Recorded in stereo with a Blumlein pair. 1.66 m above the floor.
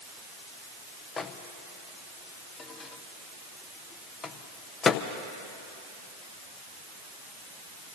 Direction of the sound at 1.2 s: 20° left.